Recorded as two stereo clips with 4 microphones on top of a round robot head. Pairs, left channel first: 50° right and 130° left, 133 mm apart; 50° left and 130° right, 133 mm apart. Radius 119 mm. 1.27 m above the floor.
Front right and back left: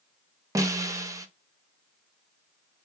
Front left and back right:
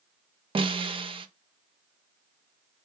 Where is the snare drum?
170° right, 0.7 m.